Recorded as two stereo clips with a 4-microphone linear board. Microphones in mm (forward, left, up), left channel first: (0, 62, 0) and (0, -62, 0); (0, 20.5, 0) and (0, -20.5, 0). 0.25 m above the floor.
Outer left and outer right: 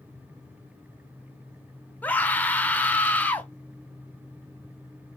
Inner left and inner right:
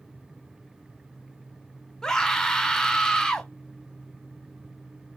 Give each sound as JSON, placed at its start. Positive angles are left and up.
{"t": 2.0, "sound": "a scream", "side_deg": 15, "distance_m": 1.1}